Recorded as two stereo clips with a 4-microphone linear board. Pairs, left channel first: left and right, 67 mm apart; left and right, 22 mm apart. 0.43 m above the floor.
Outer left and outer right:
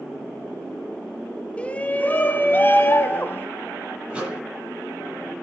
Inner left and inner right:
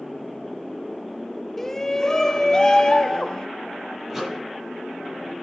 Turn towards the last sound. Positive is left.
turn(degrees=-15)  # may be behind; listen again after turning